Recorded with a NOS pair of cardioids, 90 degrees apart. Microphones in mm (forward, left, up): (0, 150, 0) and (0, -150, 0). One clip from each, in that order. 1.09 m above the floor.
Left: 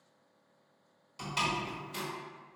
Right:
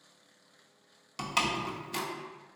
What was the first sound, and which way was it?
A door slam, 60° right.